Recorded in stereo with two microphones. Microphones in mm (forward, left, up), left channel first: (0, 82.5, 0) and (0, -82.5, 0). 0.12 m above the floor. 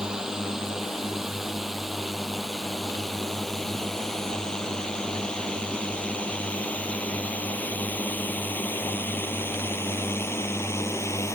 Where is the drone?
5° right (ahead or behind); by 11.3 s 15° left (ahead or behind).